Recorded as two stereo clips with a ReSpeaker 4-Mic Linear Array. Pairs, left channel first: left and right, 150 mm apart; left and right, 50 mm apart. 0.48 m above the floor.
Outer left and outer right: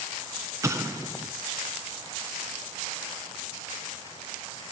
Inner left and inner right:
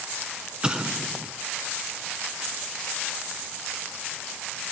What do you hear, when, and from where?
0.6 s an explosion: 20° right (ahead or behind), 1.6 m